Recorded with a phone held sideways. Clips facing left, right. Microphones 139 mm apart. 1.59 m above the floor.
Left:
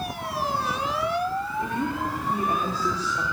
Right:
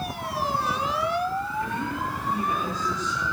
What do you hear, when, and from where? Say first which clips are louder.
1.6 s a woman speaking: left 2 dB; 25° left (ahead or behind), 4.5 m; by 3.2 s 40° left (ahead or behind), 5 m